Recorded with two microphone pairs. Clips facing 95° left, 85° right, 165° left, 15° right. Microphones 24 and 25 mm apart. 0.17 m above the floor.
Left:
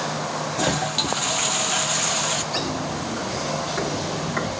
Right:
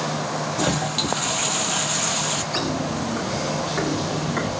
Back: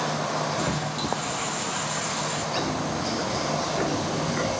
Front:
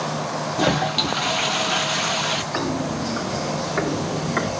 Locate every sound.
0.6 s a toilet flushing: 15° left, 0.7 m
2.5 s footsteps: 5° right, 5 m; by 4.5 s 15° left, 4 m